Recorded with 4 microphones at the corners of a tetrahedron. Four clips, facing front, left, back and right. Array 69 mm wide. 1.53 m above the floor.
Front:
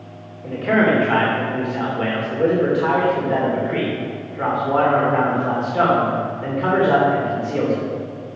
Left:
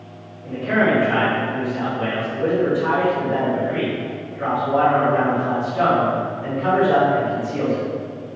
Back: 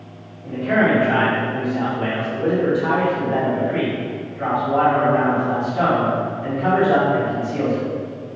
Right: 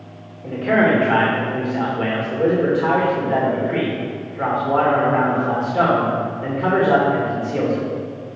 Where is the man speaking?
40° right, 2.5 m.